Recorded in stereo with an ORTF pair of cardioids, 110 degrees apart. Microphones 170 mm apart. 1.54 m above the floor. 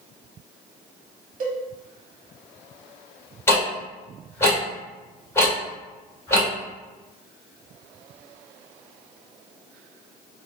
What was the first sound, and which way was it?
A cowbell, 55° right.